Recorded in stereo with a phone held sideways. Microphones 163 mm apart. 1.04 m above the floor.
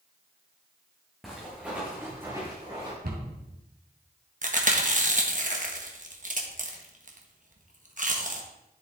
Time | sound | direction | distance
1.2 | footsteps | centre (ahead or behind) | 3.5 m
3.0 | a cupboard door | 70° right (ahead or behind) | 2.5 m
4.4 | chewing | 50° right (ahead or behind) | 1.3 m